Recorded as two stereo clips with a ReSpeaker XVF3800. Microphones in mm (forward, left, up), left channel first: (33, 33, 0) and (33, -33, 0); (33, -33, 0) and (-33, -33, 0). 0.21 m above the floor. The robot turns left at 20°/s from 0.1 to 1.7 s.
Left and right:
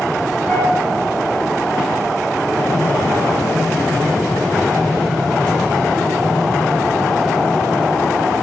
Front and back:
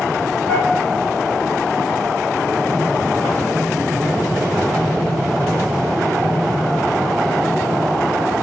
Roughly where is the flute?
Ahead left.